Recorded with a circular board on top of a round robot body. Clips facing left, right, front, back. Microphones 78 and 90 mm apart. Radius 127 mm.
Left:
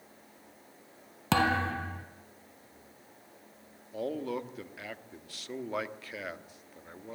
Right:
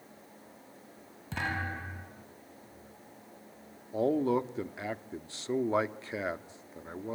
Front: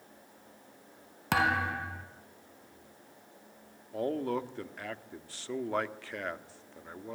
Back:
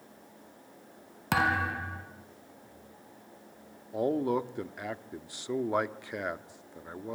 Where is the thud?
90° left, 3.5 m.